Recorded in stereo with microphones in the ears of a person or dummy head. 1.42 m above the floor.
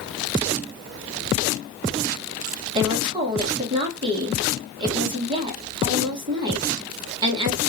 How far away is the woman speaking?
About 1.4 m.